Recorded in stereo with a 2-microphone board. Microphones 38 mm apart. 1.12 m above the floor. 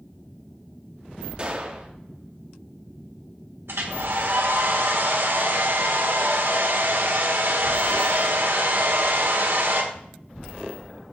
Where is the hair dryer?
75° right (ahead or behind), 1.6 m.